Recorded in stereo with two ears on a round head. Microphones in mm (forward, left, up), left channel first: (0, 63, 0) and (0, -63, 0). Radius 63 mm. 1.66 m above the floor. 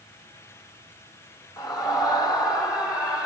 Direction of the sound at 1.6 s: 30° left (ahead or behind).